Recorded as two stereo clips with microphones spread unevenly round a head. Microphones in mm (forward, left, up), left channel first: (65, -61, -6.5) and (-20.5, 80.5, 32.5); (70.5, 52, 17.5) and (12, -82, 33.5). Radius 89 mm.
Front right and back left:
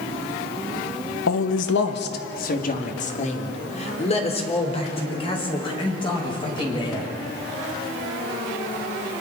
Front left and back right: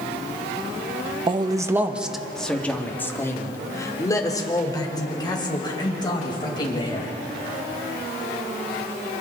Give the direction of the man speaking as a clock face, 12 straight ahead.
2 o'clock.